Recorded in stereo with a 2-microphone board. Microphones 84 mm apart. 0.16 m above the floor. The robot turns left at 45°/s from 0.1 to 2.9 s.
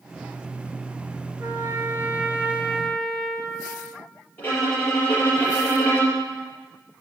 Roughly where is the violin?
Left.